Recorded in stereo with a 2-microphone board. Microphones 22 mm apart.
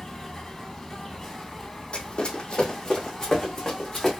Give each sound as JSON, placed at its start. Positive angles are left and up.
{"t": 0.0, "sound": "an insect", "side_deg": 15, "distance_m": 0.9}
{"t": 1.9, "sound": "running footsteps", "side_deg": 50, "distance_m": 1.0}